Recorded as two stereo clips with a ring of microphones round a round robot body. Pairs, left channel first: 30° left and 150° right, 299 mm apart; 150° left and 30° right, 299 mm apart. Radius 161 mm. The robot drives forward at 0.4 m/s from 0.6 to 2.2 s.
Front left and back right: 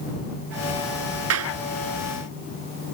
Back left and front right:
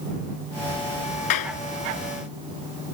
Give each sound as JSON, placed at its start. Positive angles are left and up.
{"t": 1.3, "sound": "a clap", "azimuth_deg": 165}